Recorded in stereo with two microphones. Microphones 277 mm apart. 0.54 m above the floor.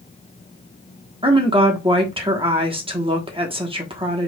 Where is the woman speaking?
20° right (ahead or behind), 1.1 m.